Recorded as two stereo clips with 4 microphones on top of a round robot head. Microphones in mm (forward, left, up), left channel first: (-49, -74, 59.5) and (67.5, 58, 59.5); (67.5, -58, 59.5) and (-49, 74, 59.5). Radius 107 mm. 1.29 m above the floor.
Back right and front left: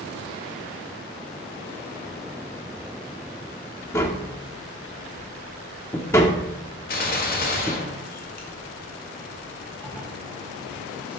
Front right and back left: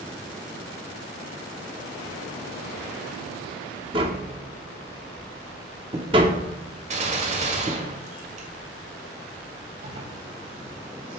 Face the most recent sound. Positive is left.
turn(degrees=150)